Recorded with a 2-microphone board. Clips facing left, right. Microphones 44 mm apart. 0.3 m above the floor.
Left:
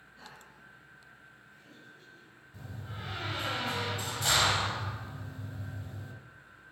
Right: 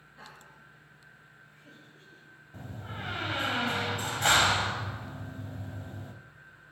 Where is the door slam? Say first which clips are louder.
Right 4 dB; 50° right (ahead or behind), 0.9 m.